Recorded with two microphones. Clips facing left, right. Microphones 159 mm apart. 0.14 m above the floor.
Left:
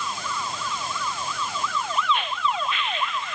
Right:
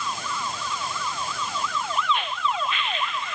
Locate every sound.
Only background noise.